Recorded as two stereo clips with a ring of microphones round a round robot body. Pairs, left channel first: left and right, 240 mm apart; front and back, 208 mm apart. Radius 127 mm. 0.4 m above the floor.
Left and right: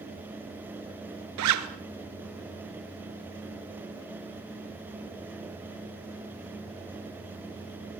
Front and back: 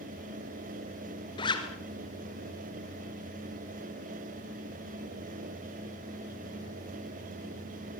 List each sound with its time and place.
1.4 s a zipper: 75° right, 2.5 m